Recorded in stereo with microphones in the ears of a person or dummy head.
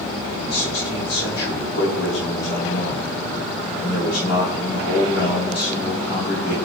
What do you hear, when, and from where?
0.4 s a man speaking: 60° left (ahead or behind), 1.2 m